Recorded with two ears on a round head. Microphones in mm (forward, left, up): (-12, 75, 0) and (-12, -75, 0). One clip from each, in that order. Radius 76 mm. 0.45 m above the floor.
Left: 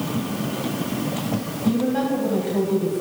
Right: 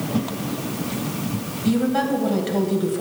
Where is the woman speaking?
50° right (ahead or behind), 2.5 m.